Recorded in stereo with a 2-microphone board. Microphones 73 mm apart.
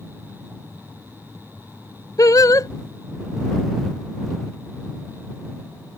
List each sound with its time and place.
2.2 s singing: 55° left (ahead or behind)